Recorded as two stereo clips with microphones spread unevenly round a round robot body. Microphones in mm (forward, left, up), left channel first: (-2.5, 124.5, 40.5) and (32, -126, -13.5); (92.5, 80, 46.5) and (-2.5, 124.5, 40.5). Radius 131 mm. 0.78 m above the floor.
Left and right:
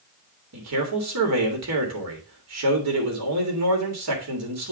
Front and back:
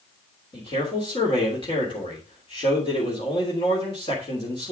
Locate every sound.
0.5 s a man speaking: 80° right, 3 m